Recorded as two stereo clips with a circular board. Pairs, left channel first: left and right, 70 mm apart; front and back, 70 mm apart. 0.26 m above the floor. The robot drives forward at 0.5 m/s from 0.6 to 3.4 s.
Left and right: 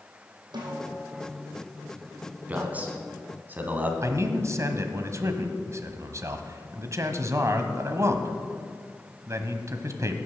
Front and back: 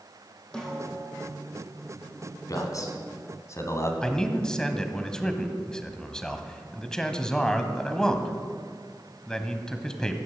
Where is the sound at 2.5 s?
25° right, 2 m; by 3.9 s 30° right, 1.8 m.